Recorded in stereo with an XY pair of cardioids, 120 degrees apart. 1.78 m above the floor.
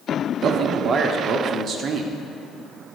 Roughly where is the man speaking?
Ahead right.